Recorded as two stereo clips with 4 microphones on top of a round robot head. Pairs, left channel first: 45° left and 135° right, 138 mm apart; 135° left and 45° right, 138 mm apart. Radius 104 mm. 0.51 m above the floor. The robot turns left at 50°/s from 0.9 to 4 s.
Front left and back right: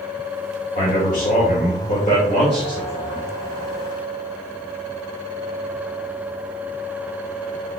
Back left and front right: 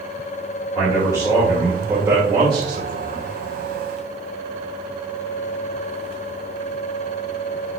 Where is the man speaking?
80° left, 2.5 m; by 3.3 s 35° right, 2.5 m.